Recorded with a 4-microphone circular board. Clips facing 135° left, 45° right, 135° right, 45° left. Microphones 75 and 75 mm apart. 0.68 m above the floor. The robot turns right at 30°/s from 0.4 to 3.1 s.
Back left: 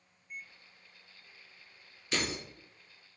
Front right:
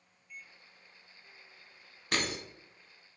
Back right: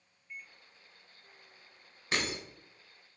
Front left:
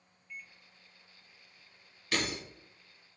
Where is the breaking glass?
75° right, 1.2 m; by 2.4 s 65° right, 1.2 m.